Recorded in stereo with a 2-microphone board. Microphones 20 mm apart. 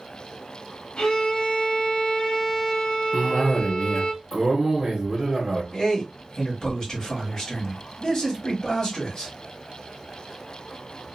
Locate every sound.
1.0 s a violin: 60° left (ahead or behind), 1.0 m
3.1 s a cough: 20° right (ahead or behind), 0.9 m
5.7 s a man speaking: 30° left (ahead or behind), 1.2 m